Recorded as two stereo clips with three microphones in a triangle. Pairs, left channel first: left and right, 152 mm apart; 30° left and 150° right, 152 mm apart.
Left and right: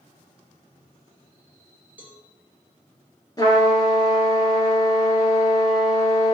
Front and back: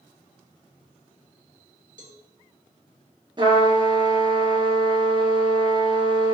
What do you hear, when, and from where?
2.0 s a cowbell: 170° right, 1.7 m
3.4 s a trumpet: 155° left, 2.5 m